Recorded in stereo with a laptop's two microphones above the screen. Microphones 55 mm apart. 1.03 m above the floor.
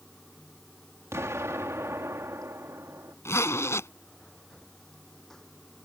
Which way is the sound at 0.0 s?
10° left (ahead or behind).